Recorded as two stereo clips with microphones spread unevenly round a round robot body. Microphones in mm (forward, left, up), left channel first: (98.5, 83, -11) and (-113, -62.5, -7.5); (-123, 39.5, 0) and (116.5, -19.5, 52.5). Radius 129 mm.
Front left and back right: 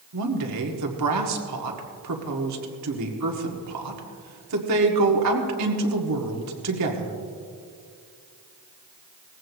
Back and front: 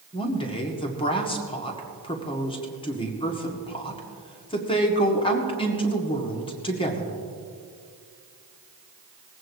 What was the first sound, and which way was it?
A woman speaking, 135° right.